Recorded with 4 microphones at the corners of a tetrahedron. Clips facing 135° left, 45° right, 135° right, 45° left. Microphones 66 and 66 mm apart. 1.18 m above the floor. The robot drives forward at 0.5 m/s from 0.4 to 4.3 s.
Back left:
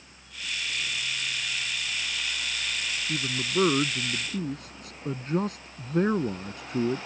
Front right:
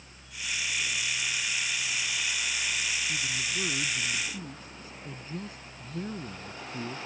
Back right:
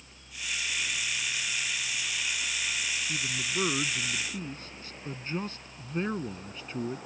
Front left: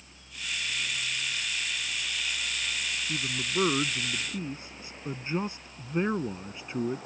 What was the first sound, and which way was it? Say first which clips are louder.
A man speaking: back left 4 dB, front left 1 dB; 115° left.